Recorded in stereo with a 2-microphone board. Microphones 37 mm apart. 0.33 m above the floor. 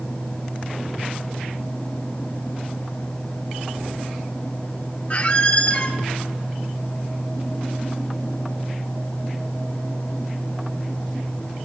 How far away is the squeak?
About 0.7 m.